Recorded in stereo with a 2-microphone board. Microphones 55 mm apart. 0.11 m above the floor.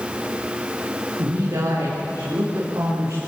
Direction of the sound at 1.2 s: 80° right.